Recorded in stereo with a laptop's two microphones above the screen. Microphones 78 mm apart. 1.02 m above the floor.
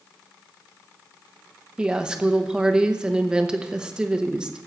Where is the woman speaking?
10° right (ahead or behind), 0.9 m.